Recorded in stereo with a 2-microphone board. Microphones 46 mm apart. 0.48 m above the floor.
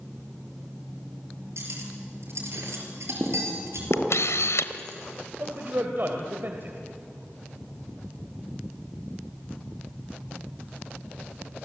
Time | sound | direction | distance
1.6 | cutlery clinking | 75° right (ahead or behind) | 5.5 m
3.9 | a camera shutter | 75° left (ahead or behind) | 1.2 m
5.4 | a man speaking | 50° right (ahead or behind) | 2.5 m